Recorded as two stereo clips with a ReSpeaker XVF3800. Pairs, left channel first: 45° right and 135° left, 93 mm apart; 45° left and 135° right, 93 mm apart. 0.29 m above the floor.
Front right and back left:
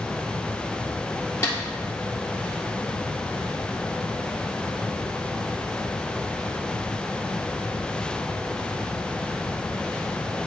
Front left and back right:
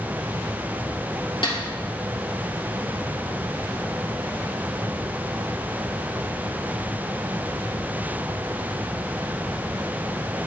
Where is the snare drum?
15° left, 2 m.